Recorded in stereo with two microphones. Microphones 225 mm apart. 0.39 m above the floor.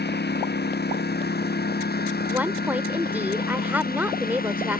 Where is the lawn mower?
50° left (ahead or behind); by 4.8 s 40° left (ahead or behind).